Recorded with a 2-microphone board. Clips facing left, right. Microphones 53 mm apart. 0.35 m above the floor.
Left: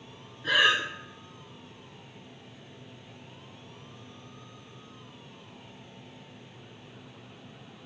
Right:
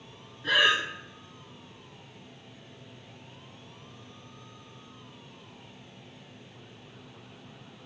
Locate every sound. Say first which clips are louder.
0.4 s breathing: even; centre (ahead or behind), 2.5 m